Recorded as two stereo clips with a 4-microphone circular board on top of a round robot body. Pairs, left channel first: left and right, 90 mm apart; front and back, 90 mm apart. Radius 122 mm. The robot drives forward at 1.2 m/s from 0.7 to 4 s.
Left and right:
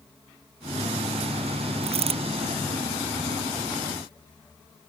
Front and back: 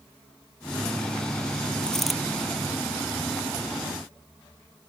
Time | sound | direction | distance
1.8 | a dropped coin | 80° right | ?